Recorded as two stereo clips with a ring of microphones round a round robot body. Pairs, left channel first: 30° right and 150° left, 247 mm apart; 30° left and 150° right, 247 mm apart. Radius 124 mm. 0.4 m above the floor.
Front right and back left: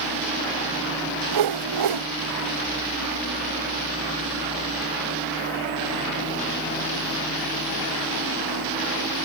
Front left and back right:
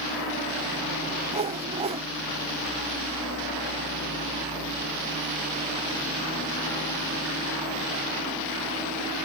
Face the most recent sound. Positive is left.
turn(degrees=140)